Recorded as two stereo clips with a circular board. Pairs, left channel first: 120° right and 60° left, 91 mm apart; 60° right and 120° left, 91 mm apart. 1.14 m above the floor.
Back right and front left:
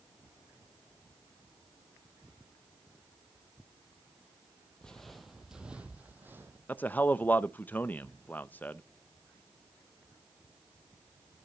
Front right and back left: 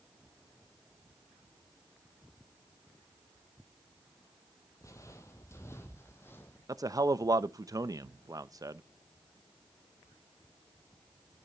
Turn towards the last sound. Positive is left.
turn(degrees=170)